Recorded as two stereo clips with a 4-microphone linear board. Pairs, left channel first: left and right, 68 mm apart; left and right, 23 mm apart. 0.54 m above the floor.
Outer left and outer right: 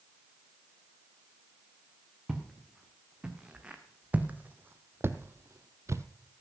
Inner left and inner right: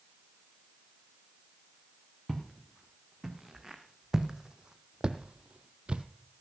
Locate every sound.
2.3 s footsteps: 10° right (ahead or behind), 2 m; by 6.0 s 40° right (ahead or behind), 0.7 m